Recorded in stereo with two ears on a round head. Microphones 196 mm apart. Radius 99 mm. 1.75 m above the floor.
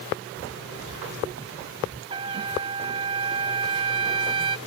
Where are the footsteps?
60° right (ahead or behind); by 2.0 s 50° right (ahead or behind).